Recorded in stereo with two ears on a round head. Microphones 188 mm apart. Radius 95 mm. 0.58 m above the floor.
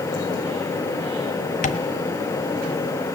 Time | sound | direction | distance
1.6 | tapping | 40° left (ahead or behind) | 1.2 m